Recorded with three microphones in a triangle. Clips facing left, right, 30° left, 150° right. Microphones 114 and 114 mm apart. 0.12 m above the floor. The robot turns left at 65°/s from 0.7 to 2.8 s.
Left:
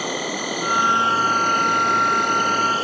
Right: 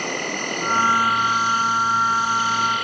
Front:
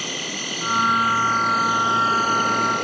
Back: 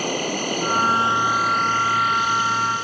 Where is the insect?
175° left; by 2.9 s 35° left.